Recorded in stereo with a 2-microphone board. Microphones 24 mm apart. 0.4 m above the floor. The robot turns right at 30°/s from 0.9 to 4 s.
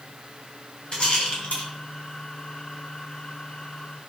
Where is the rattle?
35° left (ahead or behind), 4 m; by 1.7 s 55° left (ahead or behind), 4 m.